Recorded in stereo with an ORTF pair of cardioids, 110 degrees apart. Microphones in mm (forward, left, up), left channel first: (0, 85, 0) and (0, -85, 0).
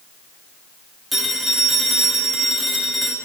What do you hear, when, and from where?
1.1 s a phone ringing: straight ahead, 2.5 m